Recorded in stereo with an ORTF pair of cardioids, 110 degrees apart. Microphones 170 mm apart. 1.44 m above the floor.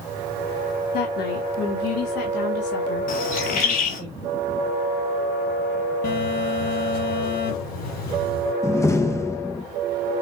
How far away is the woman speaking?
About 3.5 m.